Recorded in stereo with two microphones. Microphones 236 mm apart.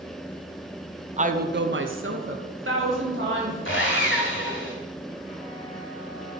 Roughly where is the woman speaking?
Right.